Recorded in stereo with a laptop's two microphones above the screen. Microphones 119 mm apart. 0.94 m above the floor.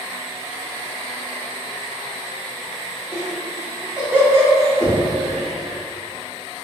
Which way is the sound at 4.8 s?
50° left (ahead or behind).